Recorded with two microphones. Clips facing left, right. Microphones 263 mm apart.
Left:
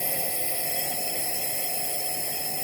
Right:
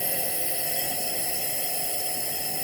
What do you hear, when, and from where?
0.0 s a drone: 5° right (ahead or behind)